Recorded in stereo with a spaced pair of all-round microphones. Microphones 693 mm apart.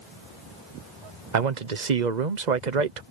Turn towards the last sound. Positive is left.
turn(degrees=-85)